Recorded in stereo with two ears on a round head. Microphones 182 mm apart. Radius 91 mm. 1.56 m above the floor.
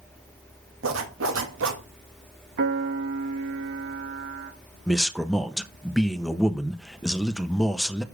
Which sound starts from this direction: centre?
A man speaking, at 4.9 s.